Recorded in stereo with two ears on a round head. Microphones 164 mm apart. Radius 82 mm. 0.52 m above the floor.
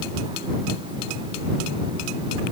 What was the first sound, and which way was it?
Only background noise.